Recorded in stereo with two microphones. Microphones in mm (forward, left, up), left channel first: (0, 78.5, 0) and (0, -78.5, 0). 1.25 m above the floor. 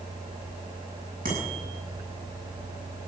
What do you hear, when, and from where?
1.2 s a bicycle bell: 60° right (ahead or behind), 8.5 m